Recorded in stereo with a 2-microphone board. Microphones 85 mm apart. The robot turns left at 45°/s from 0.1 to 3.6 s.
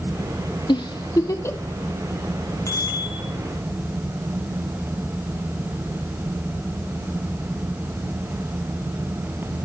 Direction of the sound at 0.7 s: 65° left (ahead or behind).